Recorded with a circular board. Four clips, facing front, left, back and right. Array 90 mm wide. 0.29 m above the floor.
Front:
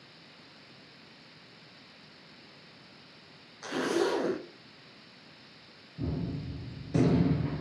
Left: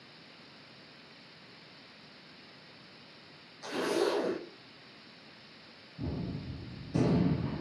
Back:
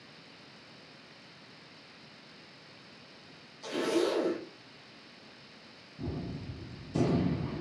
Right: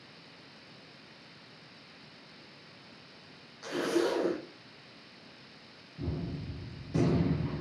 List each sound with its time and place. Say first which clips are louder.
3.6 s a zipper: right 1 dB, front 1 dB; 10° right, 1.6 m
6.0 s a gunshot: even, front 3 dB; 10° right, 1.7 m